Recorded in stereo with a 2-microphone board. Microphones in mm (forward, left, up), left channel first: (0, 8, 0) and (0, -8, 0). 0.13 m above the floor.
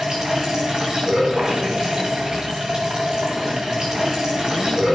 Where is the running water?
50° right (ahead or behind), 5 m.